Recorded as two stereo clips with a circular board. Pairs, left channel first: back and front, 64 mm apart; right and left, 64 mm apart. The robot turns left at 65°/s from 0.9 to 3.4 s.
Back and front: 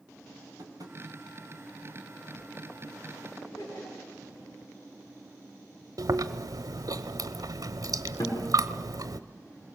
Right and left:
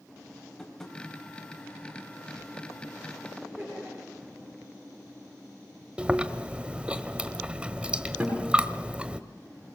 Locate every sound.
0.6 s tapping: 5° right, 3.5 m; by 1.0 s 10° right, 3.5 m
3.4 s laughter: 165° right, 9 m
6.0 s chewing: 15° left, 1.0 m
8.2 s a guitar: 170° left, 7.5 m